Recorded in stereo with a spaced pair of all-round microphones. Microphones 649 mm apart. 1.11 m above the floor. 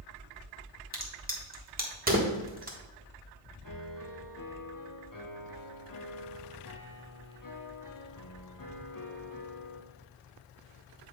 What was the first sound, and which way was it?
A crack, 15° right (ahead or behind).